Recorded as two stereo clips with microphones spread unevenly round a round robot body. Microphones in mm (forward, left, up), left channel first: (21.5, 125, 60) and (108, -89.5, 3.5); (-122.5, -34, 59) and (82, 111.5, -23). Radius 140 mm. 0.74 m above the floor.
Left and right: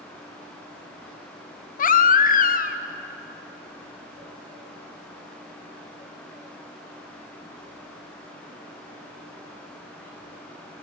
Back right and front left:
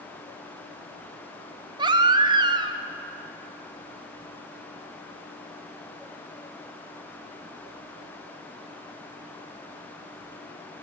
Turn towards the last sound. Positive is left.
turn(degrees=60)